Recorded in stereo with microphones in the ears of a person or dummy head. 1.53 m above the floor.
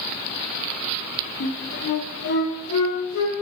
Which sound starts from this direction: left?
A flute, at 1.4 s.